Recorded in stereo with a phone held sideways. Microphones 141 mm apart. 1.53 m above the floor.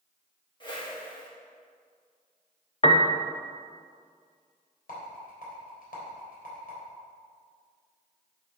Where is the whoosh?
35° left (ahead or behind), 2 m.